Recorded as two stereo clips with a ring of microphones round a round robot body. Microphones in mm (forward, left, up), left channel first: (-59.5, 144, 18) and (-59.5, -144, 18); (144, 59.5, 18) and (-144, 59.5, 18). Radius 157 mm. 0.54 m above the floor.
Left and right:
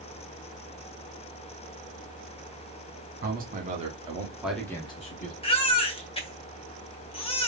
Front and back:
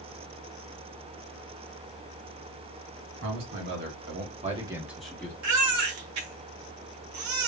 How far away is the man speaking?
About 2 m.